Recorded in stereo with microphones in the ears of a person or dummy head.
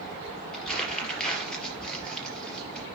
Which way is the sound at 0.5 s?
5° left (ahead or behind).